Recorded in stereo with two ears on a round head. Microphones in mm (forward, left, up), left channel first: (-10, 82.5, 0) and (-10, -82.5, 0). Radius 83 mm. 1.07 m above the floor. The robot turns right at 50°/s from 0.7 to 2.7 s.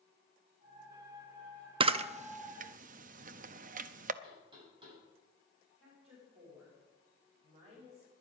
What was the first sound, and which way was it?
A camera shutter, 30° right (ahead or behind).